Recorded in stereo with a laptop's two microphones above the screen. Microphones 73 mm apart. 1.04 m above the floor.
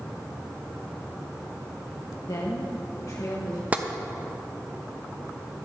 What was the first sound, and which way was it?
A woman speaking, 55° left (ahead or behind).